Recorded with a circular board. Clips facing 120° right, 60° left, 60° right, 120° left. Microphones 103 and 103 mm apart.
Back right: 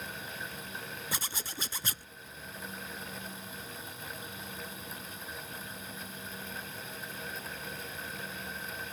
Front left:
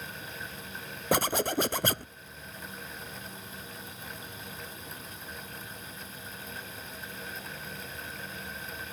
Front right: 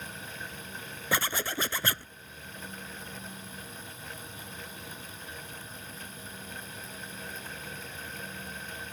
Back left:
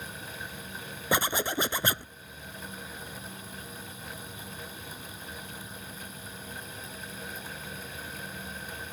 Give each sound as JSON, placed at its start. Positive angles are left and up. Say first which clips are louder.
{"t": 1.1, "sound": "a zipper", "louder": "front left 18 dB, back left 3 dB", "azimuth_deg": 50}